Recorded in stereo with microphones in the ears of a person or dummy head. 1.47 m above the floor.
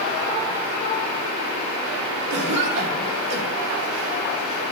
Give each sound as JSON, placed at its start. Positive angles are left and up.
{"t": 2.3, "sound": "a cough", "side_deg": -60, "distance_m": 3.0}